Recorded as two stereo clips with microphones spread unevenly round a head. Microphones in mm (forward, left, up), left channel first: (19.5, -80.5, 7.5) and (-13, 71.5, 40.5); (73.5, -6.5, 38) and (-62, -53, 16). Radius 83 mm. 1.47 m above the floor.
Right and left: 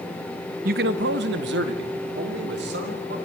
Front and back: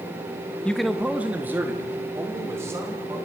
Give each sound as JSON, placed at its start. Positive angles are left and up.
{"t": 0.7, "sound": "a man speaking", "azimuth_deg": 95, "distance_m": 0.7}